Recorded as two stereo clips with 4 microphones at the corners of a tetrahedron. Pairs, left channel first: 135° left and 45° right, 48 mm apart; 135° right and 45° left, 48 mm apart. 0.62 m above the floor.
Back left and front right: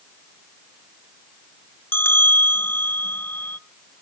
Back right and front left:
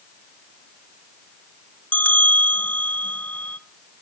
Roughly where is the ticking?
No ticking in this recording.